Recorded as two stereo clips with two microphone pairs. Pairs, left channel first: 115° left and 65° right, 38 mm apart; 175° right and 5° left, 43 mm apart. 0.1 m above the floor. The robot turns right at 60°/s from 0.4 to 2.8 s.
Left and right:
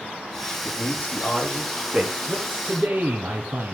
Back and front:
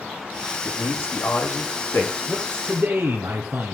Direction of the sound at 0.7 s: 135° left.